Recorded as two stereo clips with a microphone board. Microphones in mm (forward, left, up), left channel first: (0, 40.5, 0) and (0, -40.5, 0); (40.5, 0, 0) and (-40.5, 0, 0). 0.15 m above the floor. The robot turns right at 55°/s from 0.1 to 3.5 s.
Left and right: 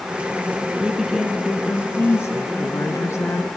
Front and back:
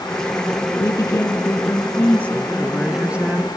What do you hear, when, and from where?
0.8 s a woman speaking: 20° right, 1.4 m; by 3.5 s 130° left, 1.4 m